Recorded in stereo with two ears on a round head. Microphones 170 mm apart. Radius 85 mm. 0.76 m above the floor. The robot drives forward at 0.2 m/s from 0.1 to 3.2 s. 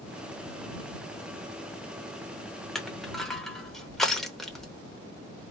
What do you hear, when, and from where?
2.8 s crushing: centre (ahead or behind), 0.8 m